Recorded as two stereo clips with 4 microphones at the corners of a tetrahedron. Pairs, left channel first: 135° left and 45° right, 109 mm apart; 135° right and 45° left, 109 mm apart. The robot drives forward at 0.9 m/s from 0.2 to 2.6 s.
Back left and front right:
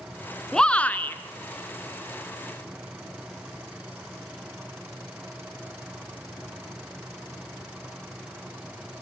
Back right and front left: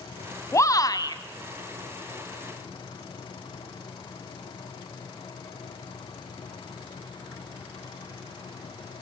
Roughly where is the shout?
Behind right.